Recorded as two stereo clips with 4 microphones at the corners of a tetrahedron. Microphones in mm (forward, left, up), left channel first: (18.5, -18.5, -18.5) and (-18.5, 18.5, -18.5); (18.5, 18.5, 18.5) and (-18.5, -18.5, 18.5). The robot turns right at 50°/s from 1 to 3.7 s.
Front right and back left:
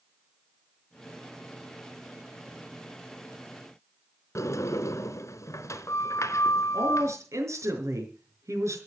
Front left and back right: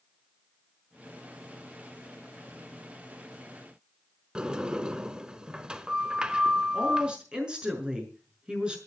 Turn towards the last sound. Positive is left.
turn(degrees=155)